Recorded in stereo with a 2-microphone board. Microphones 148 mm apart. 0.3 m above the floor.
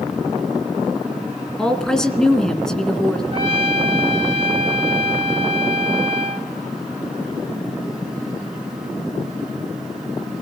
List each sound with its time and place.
1.6 s a woman speaking: 5° left (ahead or behind), 2.5 m
3.3 s a trumpet: 40° right (ahead or behind), 2.5 m